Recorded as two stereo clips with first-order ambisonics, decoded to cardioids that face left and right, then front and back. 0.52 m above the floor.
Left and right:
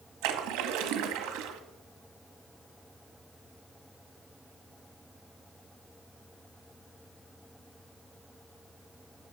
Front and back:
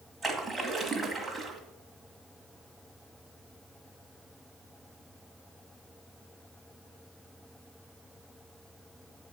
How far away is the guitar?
I don't hear a guitar.